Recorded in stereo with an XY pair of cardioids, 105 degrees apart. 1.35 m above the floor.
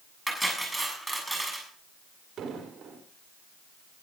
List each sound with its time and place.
0.3 s cutlery clinking: 5° right, 7 m
2.4 s an explosion: 55° right, 4.5 m